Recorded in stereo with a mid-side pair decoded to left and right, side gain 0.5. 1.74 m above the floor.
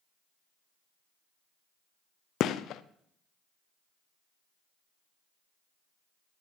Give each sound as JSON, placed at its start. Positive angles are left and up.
{"t": 2.4, "sound": "a gunshot", "azimuth_deg": 65, "distance_m": 0.7}